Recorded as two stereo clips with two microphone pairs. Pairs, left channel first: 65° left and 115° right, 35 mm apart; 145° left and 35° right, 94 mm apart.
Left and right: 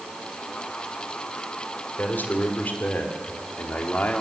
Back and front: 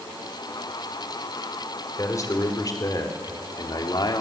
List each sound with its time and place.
2.0 s a man speaking: 95° left, 3.5 m; by 4.2 s 110° left, 2 m